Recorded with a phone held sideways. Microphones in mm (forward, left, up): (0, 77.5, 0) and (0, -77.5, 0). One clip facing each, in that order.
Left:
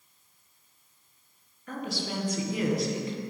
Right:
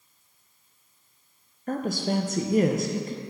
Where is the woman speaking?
45° right (ahead or behind), 0.5 m.